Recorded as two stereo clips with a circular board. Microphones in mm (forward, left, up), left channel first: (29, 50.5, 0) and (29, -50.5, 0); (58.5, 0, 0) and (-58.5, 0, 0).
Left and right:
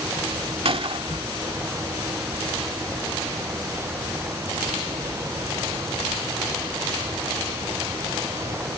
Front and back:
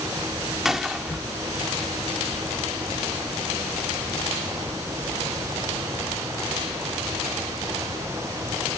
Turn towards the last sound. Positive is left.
turn(degrees=-95)